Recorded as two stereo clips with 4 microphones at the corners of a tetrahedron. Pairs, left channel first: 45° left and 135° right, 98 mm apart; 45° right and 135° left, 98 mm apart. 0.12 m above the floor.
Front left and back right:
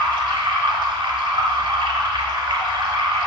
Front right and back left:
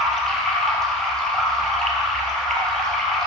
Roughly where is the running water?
Behind right.